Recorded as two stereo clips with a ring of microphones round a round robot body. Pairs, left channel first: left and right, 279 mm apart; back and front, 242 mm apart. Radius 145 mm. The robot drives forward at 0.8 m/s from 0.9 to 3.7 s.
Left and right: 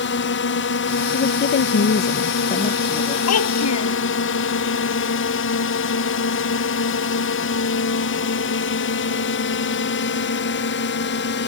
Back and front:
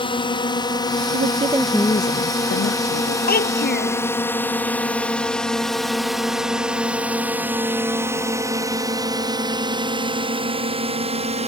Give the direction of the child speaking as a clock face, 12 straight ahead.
8 o'clock.